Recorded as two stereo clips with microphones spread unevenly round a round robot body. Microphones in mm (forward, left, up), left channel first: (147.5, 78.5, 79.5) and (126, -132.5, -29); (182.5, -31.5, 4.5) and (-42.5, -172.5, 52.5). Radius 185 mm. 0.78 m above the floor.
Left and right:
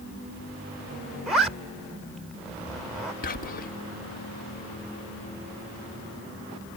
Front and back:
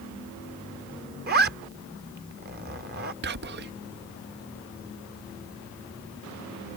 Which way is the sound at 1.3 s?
160° left.